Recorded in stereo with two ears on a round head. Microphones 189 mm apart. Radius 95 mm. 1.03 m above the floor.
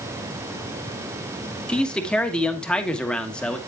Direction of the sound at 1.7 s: 5° left (ahead or behind).